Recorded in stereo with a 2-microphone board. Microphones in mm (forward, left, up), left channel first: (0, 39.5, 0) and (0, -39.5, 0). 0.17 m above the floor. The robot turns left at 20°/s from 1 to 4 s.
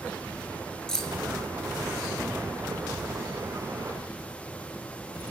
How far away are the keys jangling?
About 1.8 m.